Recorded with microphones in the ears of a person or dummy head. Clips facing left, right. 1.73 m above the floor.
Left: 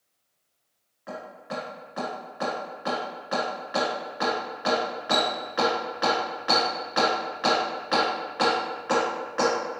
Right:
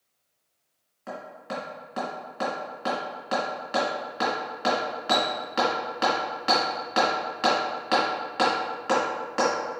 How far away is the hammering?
About 1.7 m.